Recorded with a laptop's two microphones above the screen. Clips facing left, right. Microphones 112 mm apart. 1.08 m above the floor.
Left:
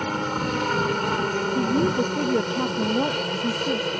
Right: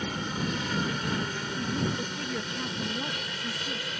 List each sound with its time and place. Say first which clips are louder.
0.0 s a helicopter: left 7 dB; 60° left (ahead or behind); by 4.0 s 55° left (ahead or behind)
1.6 s a woman speaking: left 9 dB; 55° left (ahead or behind)